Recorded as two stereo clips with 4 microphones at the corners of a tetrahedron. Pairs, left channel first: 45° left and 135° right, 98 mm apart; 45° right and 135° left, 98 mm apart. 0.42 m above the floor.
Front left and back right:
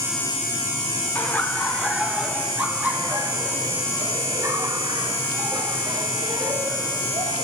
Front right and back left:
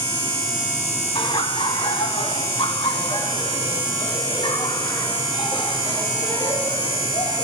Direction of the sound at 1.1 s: 25° right.